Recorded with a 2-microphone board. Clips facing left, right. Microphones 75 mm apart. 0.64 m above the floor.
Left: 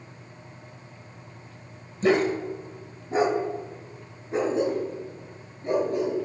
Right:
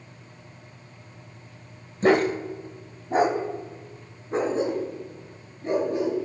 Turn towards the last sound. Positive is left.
turn(degrees=-35)  # may be behind; listen again after turning